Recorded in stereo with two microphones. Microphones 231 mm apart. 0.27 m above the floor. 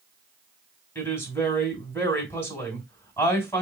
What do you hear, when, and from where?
0.9 s a woman speaking: 10° left (ahead or behind), 2 m